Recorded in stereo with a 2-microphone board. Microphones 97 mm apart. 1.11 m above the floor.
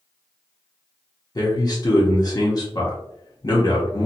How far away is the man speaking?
About 0.8 m.